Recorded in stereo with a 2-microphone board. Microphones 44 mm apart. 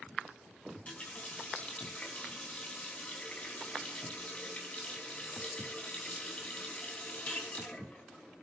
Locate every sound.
0.7 s a running tap: 30° left (ahead or behind), 3 m